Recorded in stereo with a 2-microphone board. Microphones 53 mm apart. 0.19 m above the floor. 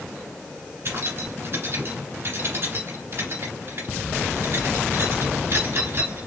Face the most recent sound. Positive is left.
turn(degrees=-55)  # may be behind; listen again after turning